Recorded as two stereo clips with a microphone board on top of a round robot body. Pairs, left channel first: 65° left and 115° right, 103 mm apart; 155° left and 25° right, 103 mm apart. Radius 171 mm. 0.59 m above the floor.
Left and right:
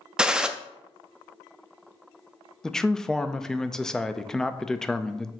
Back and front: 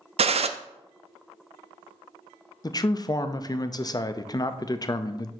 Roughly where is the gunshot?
Ahead right.